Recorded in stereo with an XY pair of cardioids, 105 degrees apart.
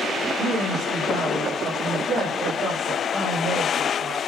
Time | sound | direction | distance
0.4 | a woman speaking | 60° right | 8 m